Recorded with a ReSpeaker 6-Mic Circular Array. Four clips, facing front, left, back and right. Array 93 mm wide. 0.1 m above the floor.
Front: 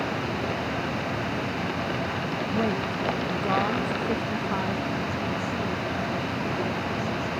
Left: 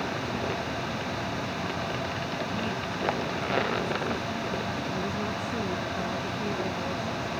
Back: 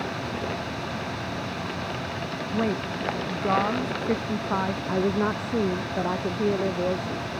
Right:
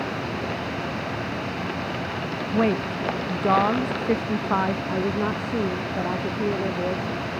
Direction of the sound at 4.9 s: 145° right.